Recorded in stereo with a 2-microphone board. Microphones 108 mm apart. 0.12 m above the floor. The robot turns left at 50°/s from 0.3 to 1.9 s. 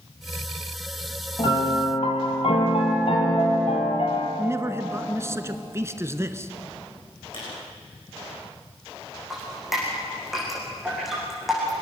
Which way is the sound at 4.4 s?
25° right (ahead or behind).